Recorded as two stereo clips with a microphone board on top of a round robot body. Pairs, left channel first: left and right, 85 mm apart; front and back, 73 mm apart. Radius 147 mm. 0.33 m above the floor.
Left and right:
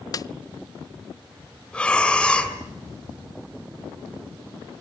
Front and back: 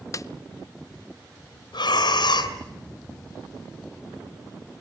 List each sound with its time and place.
0.1 s a snare drum: 45° left, 0.7 m
1.7 s breathing: 10° left, 4 m